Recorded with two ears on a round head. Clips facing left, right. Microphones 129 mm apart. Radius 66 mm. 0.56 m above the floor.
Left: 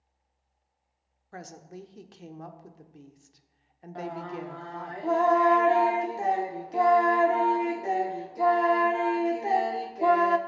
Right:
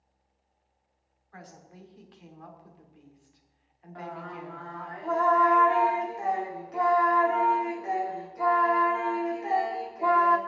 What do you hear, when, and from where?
1.3 s a woman speaking: 50° left (ahead or behind), 1.3 m
4.0 s singing: 35° left (ahead or behind), 1.2 m